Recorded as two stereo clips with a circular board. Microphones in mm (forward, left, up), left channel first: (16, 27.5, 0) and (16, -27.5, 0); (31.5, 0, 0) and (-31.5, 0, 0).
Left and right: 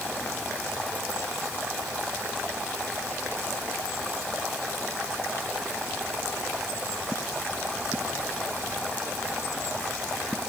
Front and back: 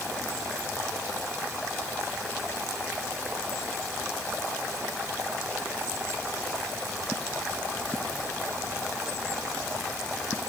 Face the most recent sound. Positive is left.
No sound to turn to.